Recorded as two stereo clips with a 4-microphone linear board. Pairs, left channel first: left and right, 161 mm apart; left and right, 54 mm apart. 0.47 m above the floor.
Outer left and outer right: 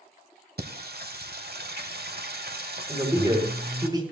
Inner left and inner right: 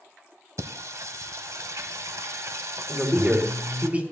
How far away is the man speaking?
About 2.5 m.